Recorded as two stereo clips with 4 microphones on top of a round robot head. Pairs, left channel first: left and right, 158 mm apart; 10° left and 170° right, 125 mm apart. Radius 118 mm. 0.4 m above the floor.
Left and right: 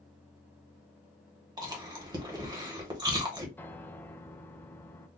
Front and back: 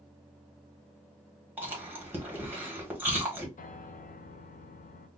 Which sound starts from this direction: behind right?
Chewing, at 1.6 s.